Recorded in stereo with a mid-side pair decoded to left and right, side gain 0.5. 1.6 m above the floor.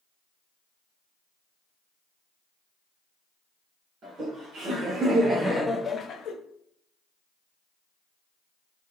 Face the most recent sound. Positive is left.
turn(degrees=65)